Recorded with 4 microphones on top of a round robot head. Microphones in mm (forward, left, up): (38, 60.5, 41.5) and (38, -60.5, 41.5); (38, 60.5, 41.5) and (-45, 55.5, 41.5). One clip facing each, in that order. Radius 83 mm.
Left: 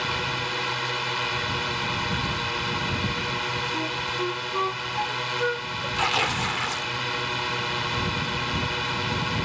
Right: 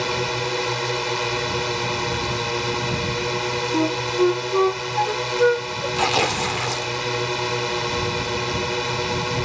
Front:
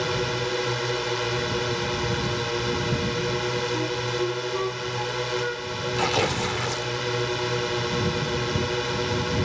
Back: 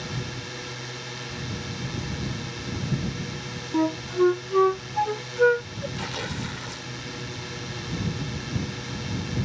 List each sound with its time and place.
0.0 s a drone: 40° right
3.7 s a flute: 130° right
6.0 s tearing paper: 40° right